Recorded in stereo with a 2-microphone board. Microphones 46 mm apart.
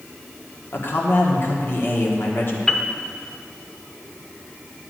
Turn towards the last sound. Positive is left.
turn(degrees=15)  # may be behind; listen again after turning